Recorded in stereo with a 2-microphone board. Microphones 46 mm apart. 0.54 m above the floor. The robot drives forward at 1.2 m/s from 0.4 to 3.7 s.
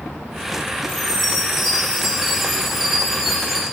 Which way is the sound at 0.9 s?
5° right (ahead or behind).